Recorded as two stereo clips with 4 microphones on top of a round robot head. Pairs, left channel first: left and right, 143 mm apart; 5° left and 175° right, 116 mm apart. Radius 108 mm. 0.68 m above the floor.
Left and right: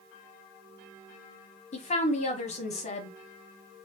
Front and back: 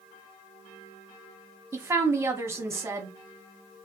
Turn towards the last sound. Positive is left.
turn(degrees=120)